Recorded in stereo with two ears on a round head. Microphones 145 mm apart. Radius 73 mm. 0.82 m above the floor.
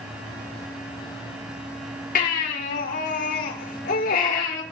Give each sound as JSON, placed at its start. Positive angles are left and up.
{"t": 2.1, "sound": "a baby crying", "side_deg": 55, "distance_m": 9.0}